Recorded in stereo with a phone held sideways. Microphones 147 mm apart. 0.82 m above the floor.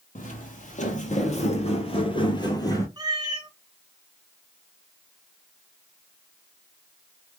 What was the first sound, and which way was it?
Footsteps, 60° left (ahead or behind).